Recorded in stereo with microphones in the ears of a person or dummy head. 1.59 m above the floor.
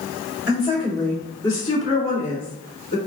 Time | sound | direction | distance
0.5 | a woman speaking | 5° right (ahead or behind) | 1.4 m